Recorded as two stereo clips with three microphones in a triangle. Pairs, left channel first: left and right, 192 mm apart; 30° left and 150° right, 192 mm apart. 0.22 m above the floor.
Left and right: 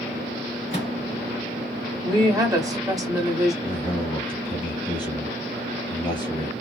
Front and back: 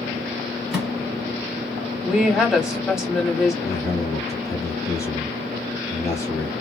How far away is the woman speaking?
About 1.3 m.